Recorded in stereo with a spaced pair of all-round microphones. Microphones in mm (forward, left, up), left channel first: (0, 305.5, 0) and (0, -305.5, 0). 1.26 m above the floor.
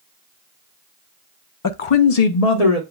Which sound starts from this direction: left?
A woman speaking, at 1.6 s.